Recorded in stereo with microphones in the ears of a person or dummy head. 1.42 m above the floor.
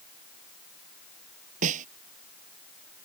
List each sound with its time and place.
1.6 s a snare drum: 45° right (ahead or behind)